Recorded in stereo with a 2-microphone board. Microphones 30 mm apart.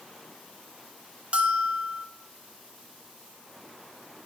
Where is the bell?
40° right (ahead or behind), 1.1 m.